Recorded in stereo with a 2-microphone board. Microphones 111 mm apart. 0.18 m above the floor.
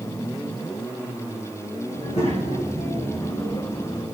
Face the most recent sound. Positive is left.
turn(degrees=55)  # may be behind; listen again after turning